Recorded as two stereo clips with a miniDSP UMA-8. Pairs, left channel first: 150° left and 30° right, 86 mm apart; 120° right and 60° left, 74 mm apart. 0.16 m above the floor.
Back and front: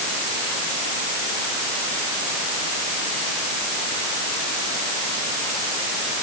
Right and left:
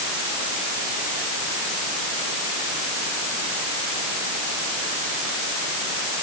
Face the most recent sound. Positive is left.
No sound to turn to.